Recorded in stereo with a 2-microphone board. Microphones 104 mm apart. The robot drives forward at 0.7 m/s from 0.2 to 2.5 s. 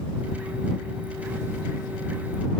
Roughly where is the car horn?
I don't hear a car horn.